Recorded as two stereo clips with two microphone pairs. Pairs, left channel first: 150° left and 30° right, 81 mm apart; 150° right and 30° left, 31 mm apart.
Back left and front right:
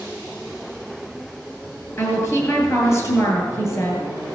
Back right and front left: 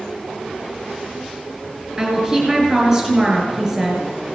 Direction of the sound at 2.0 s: 100° left.